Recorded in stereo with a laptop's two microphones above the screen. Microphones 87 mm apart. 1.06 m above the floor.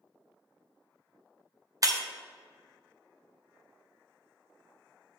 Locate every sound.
1.8 s breaking glass: 40° right (ahead or behind), 0.6 m